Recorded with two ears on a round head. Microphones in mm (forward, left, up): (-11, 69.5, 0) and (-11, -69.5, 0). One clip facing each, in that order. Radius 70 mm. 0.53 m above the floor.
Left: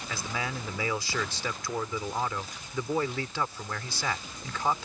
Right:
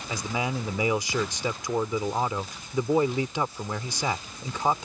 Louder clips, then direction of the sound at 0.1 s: Right 6 dB; 15° right (ahead or behind).